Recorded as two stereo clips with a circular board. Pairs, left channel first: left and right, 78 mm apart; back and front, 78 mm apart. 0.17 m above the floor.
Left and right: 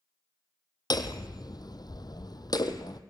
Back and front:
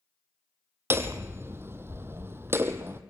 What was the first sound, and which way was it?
Hammering, 60° left.